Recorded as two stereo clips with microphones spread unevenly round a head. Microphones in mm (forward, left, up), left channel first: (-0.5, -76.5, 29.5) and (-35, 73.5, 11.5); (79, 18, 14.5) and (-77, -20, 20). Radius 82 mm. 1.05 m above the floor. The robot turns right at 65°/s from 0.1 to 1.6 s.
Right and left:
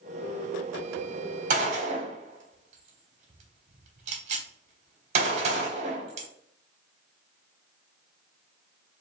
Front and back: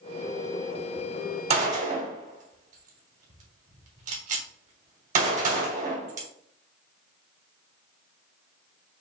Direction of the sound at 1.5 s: 140° left.